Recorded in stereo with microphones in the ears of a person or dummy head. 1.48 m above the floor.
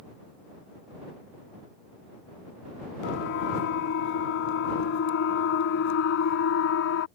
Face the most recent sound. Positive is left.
turn(degrees=80)